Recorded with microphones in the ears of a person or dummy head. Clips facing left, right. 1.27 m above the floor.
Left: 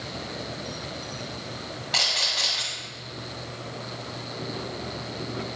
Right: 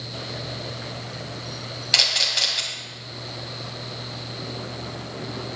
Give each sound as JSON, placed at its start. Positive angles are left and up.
{"t": 1.9, "sound": "a camera shutter", "side_deg": -40, "distance_m": 2.0}